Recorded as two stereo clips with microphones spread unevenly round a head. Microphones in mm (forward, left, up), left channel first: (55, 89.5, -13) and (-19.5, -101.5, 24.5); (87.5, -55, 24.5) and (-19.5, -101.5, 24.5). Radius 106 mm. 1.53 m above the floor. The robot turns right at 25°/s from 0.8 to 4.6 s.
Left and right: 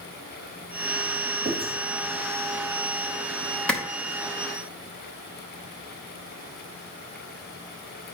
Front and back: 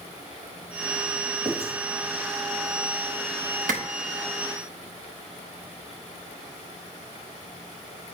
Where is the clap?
160° left, 1.1 m.